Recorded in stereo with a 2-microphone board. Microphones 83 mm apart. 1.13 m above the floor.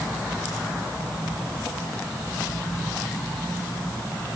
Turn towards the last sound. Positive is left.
No sound to turn to.